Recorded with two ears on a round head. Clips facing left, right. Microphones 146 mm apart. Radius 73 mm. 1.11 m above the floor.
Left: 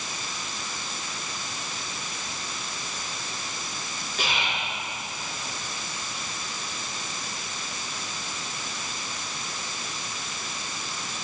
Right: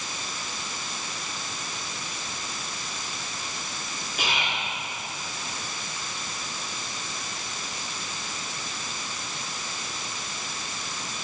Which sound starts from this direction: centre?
Whispering, at 4.2 s.